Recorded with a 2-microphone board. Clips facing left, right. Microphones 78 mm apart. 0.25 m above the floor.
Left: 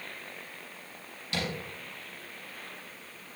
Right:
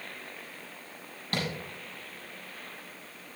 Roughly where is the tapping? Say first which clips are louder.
Right 1 dB; right.